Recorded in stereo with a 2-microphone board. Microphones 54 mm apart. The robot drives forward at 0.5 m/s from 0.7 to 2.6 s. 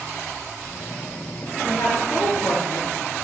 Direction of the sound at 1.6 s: 60° left (ahead or behind).